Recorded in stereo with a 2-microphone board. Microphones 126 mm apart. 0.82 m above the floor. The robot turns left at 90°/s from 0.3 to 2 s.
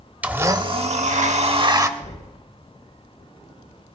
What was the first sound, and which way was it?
A blender, 15° right.